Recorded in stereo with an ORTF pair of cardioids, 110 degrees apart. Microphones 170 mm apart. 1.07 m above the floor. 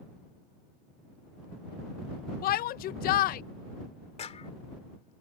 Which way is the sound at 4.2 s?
40° left.